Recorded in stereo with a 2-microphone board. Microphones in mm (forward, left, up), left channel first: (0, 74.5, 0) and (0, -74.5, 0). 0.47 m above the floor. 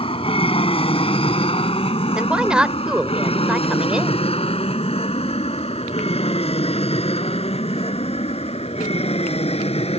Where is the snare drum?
I don't hear a snare drum.